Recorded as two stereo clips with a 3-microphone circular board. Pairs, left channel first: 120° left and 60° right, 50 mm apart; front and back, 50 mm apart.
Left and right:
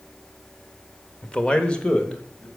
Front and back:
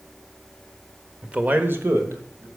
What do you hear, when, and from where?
1.2 s a man speaking: 145° left, 0.8 m; by 2.5 s 170° right, 1.9 m